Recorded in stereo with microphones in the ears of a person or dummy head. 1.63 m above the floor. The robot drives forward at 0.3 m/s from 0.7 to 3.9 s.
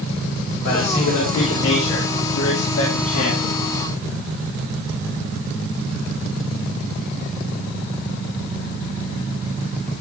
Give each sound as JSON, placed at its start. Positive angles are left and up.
{"t": 0.6, "sound": "a man speaking", "side_deg": 80, "distance_m": 4.0}